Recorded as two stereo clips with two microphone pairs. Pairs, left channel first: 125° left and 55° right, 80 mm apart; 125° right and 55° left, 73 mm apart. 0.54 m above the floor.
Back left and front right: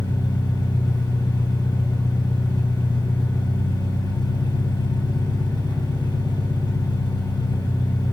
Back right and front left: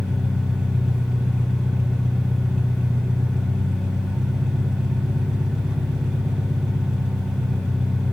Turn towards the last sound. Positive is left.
turn(degrees=130)